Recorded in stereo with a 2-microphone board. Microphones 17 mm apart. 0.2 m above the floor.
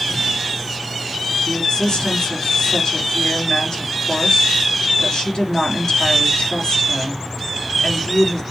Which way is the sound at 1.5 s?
65° left (ahead or behind).